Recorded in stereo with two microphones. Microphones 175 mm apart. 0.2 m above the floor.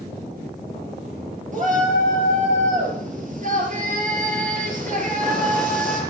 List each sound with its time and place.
1.5 s a shout: 50° right (ahead or behind), 4 m